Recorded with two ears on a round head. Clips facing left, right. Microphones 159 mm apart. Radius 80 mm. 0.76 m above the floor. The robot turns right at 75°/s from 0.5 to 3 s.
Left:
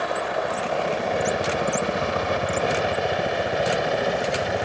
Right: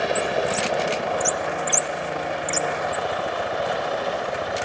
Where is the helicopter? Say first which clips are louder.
Right 3 dB; 30° right (ahead or behind); by 4.6 s 25° left (ahead or behind).